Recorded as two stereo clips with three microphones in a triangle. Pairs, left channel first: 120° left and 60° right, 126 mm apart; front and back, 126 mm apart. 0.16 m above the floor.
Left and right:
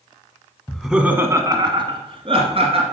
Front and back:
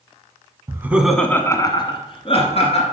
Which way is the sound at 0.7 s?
160° right.